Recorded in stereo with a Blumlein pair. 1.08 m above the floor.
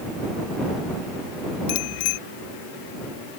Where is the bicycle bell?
45° left.